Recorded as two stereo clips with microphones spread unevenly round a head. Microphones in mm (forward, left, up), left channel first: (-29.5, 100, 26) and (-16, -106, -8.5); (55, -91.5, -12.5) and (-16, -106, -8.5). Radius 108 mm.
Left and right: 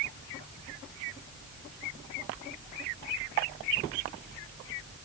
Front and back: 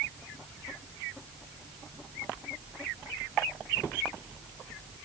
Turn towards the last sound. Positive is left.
No sound to turn to.